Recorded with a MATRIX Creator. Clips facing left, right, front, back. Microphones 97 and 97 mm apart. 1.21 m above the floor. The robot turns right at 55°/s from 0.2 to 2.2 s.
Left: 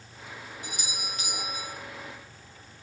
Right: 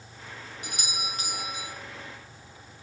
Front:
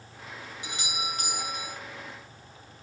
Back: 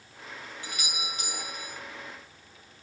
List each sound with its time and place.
0.6 s a doorbell: 70° right, 1.7 m; by 1.8 s 10° right, 1.7 m